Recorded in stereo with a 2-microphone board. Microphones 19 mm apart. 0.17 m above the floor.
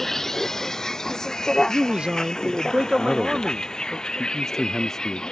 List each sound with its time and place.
0.0 s a vehicle: 15° left (ahead or behind); by 5.3 s 45° left (ahead or behind)
1.6 s a man speaking: 65° right (ahead or behind)
3.0 s a man speaking: 25° left (ahead or behind)